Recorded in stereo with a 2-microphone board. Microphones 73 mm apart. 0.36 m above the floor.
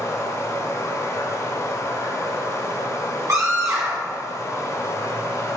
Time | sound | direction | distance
0.0 | running water | 50° left (ahead or behind) | 1.5 m
3.3 | a scream | 45° right (ahead or behind) | 2.5 m